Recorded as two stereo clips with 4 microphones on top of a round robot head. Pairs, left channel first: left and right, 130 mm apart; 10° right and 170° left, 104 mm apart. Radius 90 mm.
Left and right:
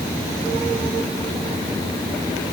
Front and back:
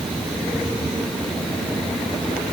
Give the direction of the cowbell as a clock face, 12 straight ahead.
No cowbell in this recording.